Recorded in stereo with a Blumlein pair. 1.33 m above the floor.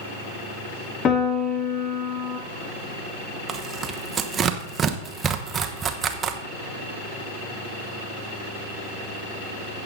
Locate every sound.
1.1 s a piano: 25° left, 1.9 m
3.5 s tearing paper: 20° right, 1.1 m